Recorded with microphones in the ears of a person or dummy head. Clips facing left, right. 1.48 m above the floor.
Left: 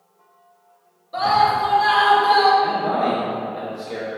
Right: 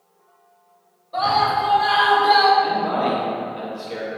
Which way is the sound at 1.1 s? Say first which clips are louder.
Left 2 dB; 25° left (ahead or behind).